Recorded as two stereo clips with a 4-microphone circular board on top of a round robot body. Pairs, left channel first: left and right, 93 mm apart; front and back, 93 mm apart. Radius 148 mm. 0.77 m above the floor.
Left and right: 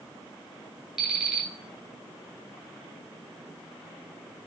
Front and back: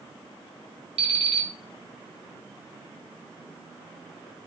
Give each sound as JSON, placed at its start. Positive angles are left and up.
{"t": 1.0, "sound": "an alarm clock", "azimuth_deg": 180, "distance_m": 1.2}